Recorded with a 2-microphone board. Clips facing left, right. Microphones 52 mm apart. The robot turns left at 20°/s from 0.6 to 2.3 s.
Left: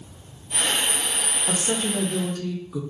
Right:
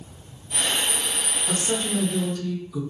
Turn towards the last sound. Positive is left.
turn(degrees=45)  # may be behind; listen again after turning